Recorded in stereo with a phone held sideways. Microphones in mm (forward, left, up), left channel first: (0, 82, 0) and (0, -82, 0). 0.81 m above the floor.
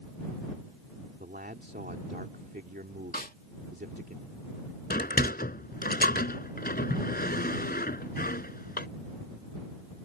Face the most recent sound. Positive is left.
turn(degrees=65)  # may be behind; listen again after turning